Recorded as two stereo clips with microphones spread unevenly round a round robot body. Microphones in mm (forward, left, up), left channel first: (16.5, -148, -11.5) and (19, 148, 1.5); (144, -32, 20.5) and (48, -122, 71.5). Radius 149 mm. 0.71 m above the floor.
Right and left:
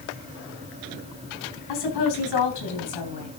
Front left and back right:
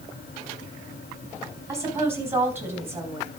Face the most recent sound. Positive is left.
turn(degrees=-65)